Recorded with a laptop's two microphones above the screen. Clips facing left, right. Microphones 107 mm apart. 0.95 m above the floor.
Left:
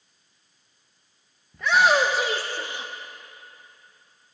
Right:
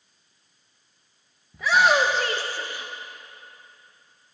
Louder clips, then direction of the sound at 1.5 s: Even; 5° right (ahead or behind).